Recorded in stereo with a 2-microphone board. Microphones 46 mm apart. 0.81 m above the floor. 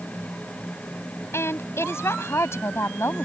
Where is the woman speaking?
80° left.